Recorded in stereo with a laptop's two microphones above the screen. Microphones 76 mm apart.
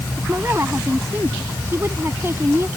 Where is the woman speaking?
30° right (ahead or behind).